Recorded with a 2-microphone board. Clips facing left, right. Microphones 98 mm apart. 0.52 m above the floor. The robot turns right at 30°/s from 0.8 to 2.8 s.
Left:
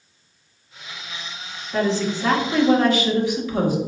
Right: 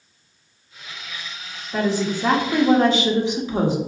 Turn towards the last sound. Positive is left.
turn(degrees=-140)